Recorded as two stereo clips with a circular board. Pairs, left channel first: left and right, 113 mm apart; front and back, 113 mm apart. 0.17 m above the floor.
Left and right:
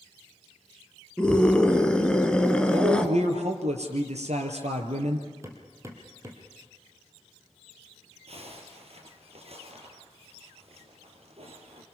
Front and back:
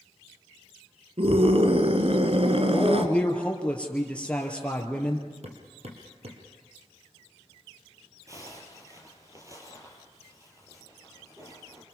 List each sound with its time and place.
1.2 s a scream: 170° left, 2 m
2.7 s a man speaking: 80° right, 4 m
5.4 s hammering: 155° right, 4 m
8.3 s a zipper: 120° right, 5 m